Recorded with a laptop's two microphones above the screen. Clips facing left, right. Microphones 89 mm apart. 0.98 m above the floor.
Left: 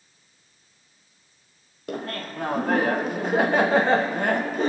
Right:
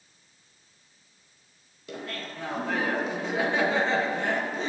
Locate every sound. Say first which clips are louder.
1.9 s laughter: left 5 dB; 55° left (ahead or behind), 0.7 m